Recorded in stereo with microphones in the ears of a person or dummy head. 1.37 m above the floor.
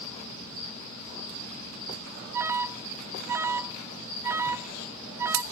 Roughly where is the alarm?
Centre.